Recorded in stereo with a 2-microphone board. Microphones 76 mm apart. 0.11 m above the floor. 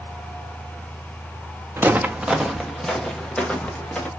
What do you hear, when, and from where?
1.8 s footsteps: 30° right (ahead or behind), 0.6 m; by 4.1 s 15° left (ahead or behind), 1.7 m